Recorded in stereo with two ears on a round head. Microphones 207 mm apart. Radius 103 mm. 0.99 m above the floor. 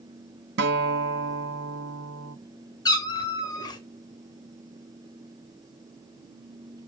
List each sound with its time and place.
0.6 s a guitar: 55° right (ahead or behind), 1.4 m
2.9 s a cat meowing: 20° left (ahead or behind), 2 m